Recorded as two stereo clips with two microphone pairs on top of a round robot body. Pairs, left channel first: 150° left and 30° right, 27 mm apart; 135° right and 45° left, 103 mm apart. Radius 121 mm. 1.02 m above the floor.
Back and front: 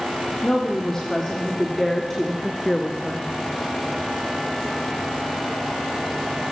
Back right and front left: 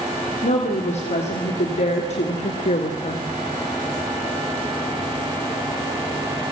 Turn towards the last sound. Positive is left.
turn(degrees=-120)